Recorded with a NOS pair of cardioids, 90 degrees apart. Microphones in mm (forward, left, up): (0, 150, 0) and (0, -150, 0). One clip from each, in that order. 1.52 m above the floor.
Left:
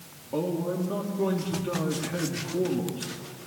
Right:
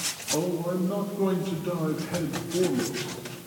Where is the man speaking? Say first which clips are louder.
Even; 5° right, 3.5 m.